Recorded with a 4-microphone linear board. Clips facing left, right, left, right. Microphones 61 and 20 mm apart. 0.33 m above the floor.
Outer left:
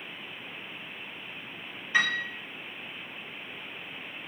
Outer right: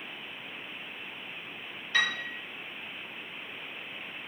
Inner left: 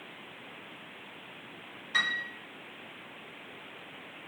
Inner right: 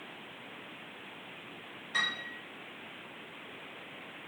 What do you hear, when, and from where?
1.9 s a piano: 20° left (ahead or behind), 0.9 m